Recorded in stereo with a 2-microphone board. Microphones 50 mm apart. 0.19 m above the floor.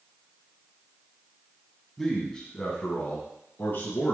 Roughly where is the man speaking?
Centre.